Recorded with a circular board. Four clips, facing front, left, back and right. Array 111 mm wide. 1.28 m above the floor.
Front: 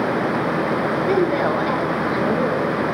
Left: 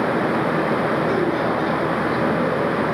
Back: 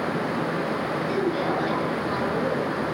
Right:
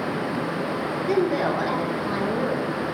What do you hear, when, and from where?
1.1 s a woman speaking: 15° right, 5 m; by 2.8 s straight ahead, 6.5 m